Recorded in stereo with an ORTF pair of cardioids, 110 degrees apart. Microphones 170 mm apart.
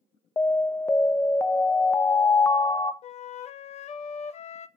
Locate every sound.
0.4 s an alarm: 15° left, 0.6 m
3.0 s a flute: 45° left, 0.5 m